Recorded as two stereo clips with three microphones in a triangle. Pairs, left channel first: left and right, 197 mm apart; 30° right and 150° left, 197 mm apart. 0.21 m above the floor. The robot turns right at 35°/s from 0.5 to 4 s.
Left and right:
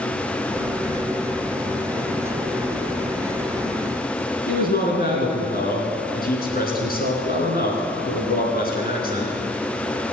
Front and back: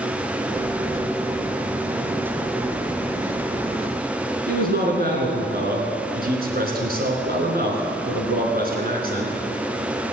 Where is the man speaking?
120° left, 3 m.